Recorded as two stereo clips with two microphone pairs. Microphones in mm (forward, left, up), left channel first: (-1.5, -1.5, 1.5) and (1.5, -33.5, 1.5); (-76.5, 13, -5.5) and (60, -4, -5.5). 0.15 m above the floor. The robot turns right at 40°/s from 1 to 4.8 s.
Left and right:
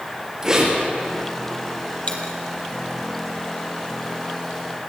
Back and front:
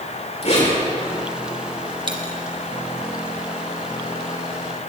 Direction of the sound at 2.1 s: 45° left.